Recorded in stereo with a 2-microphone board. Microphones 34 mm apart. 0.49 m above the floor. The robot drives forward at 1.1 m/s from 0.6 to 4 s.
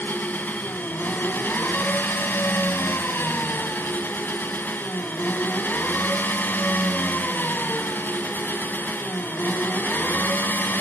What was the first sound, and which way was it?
An engine running, 55° left (ahead or behind).